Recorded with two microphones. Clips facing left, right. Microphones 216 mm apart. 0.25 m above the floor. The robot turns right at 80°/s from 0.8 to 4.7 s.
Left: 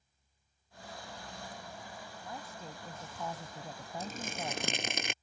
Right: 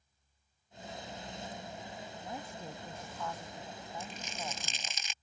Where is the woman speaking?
45° right; by 5.0 s 150° left.